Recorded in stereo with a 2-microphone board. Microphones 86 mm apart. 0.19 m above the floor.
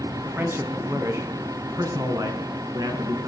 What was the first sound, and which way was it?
A man speaking, 30° right (ahead or behind).